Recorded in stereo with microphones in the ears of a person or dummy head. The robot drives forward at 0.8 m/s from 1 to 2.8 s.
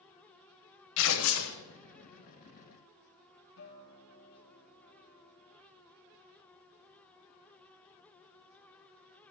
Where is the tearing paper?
70° left (ahead or behind), 0.8 m; by 1.6 s 75° left (ahead or behind), 0.8 m.